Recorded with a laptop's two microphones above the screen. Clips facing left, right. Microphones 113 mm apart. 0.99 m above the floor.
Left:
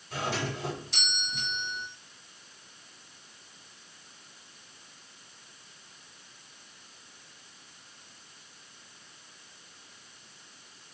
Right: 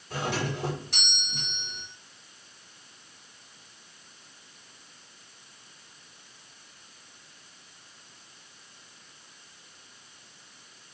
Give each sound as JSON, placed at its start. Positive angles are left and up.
{"t": 0.1, "sound": "a doorbell", "side_deg": -70, "distance_m": 4.5}